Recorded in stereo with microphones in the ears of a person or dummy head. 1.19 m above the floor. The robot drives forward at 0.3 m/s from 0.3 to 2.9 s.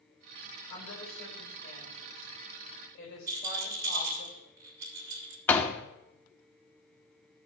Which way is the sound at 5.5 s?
10° left (ahead or behind).